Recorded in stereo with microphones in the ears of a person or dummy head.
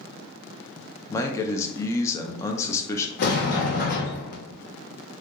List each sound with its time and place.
1.1 s a man speaking: 20° left (ahead or behind), 0.6 m
3.2 s a sliding door: 50° left (ahead or behind), 1.0 m